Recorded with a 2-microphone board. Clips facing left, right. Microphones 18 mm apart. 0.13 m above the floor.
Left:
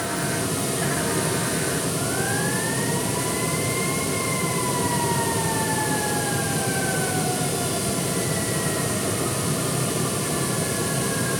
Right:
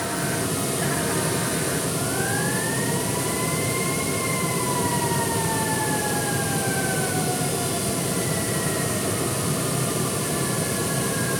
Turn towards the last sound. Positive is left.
No sound to turn to.